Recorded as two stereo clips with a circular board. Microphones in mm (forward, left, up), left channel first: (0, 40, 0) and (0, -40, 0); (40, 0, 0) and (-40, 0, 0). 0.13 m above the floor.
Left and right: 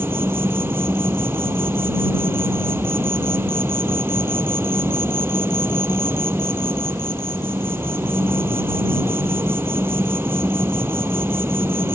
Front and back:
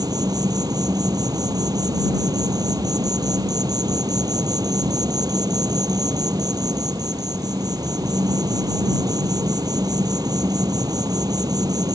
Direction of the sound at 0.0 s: 150° right.